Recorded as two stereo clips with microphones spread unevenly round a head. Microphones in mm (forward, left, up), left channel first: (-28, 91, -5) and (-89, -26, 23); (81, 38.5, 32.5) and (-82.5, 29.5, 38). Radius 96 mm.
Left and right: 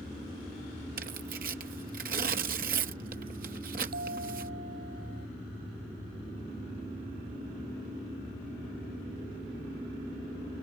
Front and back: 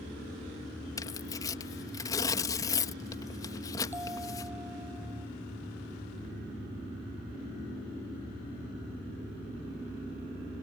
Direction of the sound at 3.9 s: 95° right.